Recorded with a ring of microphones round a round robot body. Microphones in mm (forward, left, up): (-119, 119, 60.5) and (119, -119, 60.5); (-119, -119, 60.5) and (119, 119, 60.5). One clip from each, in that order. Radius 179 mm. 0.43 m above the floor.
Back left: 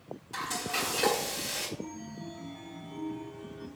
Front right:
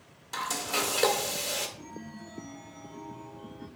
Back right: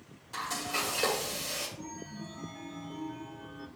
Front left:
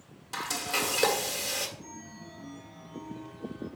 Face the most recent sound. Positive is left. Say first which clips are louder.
# back left 2 dB, back right 2 dB
turn(degrees=-125)